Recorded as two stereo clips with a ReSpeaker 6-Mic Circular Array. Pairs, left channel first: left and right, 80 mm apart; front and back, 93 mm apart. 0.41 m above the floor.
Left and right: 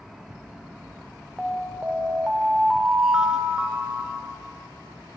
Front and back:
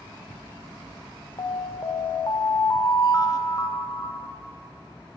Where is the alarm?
10° right, 0.6 m.